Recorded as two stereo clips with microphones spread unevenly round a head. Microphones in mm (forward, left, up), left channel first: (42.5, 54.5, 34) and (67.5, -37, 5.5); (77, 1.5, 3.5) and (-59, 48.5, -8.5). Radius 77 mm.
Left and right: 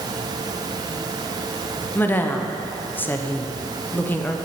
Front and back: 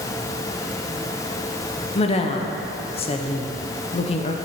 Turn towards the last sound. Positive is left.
turn(degrees=25)